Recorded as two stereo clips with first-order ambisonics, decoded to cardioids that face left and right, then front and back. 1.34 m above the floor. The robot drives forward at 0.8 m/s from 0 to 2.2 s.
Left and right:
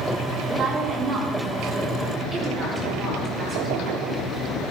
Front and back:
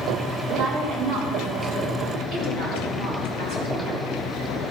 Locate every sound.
0.5 s a woman speaking: 150° right, 2.5 m; by 4.0 s 160° right, 4 m